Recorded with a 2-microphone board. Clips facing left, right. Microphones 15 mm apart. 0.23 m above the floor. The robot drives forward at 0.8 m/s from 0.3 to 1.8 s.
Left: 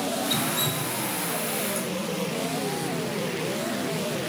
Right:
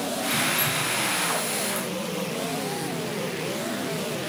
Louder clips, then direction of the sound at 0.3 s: Right 2 dB; 40° left (ahead or behind).